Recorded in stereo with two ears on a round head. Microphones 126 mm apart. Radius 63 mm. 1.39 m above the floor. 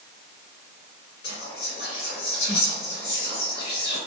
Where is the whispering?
80° left, 1.9 m.